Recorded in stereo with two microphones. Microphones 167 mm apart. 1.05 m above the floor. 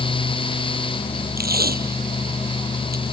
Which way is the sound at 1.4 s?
70° right (ahead or behind).